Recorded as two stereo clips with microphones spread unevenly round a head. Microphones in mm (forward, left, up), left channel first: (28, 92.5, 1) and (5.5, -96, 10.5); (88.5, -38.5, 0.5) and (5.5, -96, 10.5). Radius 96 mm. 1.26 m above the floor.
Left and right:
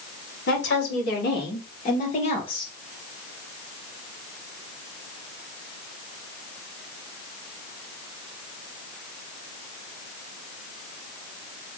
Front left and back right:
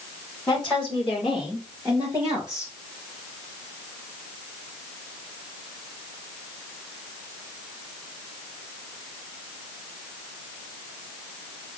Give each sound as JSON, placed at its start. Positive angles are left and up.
{"t": 0.5, "sound": "a woman speaking", "azimuth_deg": 115, "distance_m": 3.0}